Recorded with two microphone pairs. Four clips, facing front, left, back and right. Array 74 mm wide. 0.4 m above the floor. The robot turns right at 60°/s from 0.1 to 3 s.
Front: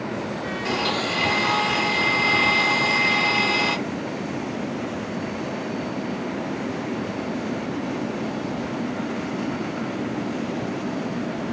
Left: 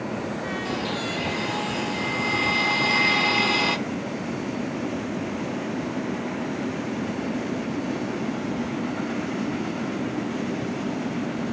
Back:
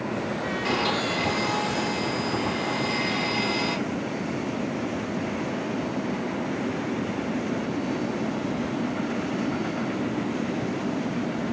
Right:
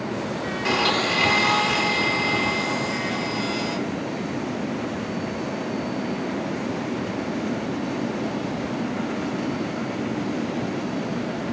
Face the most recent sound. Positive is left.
turn(degrees=30)